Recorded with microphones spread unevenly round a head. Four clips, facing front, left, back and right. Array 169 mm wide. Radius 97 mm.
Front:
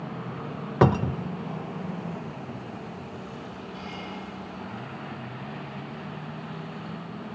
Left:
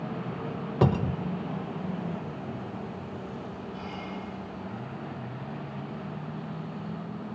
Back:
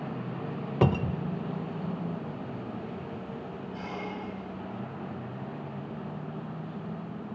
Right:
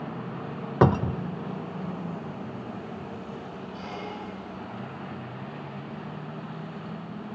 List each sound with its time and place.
0.8 s a cupboard door: 35° right, 0.9 m
3.7 s a squeak: 135° right, 2.5 m